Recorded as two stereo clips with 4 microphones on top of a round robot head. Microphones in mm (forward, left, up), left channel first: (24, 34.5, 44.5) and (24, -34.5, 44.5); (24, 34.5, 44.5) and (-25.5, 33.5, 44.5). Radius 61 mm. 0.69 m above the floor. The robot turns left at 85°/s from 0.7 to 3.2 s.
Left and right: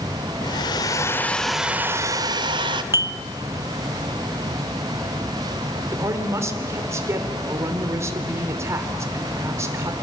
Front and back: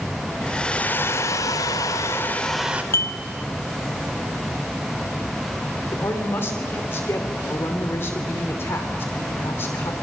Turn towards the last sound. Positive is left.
turn(degrees=-45)